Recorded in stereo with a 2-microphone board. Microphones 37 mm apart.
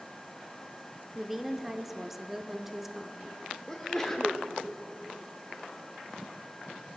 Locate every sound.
1.1 s a woman speaking: 10° right (ahead or behind), 0.8 m
3.7 s a sneeze: 15° left (ahead or behind), 0.8 m